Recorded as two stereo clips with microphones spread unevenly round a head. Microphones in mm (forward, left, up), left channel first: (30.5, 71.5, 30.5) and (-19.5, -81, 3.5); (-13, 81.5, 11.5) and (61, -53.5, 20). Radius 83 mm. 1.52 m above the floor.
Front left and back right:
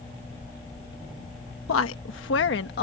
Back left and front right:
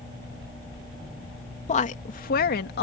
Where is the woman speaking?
75° left; by 2.8 s 100° left.